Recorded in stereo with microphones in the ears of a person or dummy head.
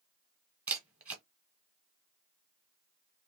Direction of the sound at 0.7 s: 15° right (ahead or behind).